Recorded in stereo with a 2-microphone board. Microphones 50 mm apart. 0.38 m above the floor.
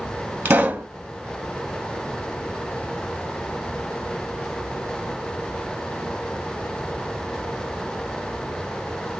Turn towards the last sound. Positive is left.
turn(degrees=-45)  # may be behind; listen again after turning